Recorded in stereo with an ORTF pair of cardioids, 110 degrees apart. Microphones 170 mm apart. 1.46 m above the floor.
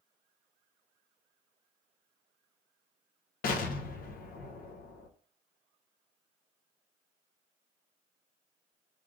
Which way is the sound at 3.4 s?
60° left.